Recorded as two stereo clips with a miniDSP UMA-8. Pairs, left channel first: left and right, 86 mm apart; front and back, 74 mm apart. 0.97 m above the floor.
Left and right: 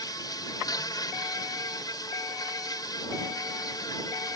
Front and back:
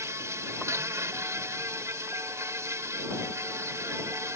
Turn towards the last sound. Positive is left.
turn(degrees=130)